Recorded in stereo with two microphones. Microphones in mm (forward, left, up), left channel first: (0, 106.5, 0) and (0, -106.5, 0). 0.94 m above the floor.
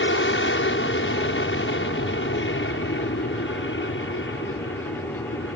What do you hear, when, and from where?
0.0 s an aircraft: 60° left (ahead or behind)